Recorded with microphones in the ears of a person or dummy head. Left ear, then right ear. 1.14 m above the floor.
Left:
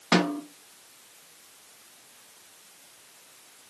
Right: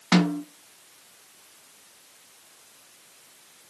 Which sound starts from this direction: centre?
A snare drum, at 0.1 s.